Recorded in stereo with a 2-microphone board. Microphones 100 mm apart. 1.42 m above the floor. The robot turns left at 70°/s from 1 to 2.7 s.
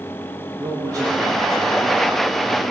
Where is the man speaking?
140° right, 3 m; by 2.7 s 100° left, 3 m.